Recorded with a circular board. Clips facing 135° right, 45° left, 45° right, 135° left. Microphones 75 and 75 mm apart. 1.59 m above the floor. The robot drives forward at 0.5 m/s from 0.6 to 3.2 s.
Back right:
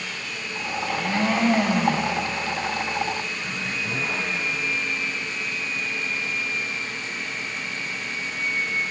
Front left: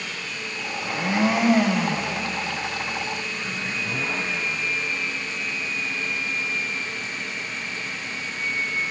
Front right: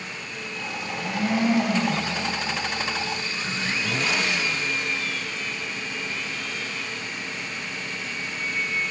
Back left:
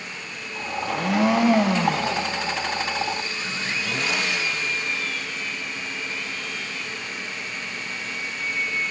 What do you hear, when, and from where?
0.8 s a blender: 115° left, 1.2 m; by 2.2 s 140° left, 1.6 m